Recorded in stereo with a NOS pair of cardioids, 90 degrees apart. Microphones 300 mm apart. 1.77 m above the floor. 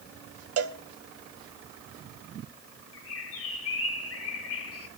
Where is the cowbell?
50° right, 1.3 m.